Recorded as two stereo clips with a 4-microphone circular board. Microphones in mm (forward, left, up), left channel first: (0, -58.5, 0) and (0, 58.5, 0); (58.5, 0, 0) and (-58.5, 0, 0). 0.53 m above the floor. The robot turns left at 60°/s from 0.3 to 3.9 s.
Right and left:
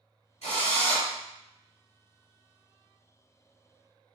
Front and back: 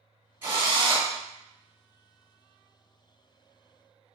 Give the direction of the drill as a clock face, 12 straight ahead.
4 o'clock.